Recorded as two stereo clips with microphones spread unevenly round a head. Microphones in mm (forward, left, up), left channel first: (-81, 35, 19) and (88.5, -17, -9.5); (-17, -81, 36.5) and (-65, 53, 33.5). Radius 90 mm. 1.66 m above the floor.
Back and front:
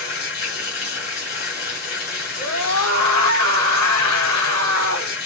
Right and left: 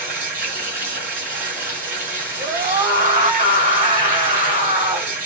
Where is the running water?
130° left, 3 m.